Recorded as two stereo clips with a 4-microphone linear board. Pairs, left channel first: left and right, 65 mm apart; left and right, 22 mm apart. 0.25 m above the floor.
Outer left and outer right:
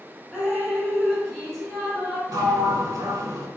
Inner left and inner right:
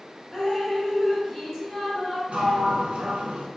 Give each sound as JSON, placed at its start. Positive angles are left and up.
{"t": 0.3, "sound": "dripping", "side_deg": 5, "distance_m": 1.2}
{"t": 2.3, "sound": "a sliding door", "side_deg": -75, "distance_m": 0.6}